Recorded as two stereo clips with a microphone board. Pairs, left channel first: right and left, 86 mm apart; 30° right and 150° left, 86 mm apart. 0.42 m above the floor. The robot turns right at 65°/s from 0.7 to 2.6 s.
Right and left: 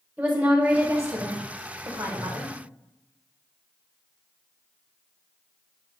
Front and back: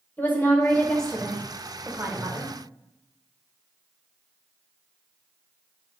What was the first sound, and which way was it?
A woman speaking, 25° left.